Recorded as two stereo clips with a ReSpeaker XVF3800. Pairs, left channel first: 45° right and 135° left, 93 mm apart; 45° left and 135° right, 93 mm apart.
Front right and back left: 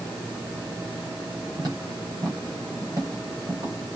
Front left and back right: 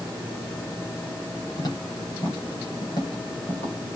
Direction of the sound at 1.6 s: 90° left.